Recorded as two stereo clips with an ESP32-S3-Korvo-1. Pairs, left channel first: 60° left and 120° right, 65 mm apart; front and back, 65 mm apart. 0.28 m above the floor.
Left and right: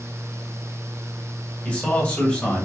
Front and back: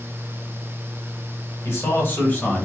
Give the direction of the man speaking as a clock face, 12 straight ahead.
12 o'clock.